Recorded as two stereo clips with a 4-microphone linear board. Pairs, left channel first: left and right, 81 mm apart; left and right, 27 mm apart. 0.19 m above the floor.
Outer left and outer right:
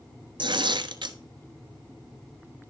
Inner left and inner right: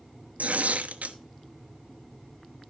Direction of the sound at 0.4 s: 70° right (ahead or behind).